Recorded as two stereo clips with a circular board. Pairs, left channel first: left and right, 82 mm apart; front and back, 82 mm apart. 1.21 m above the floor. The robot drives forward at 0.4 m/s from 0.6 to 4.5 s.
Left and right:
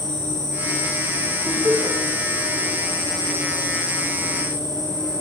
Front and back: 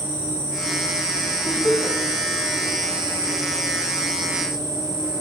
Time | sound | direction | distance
0.0 | an insect | 120° left | 4.5 m
1.4 | laughter | 75° right | 2.5 m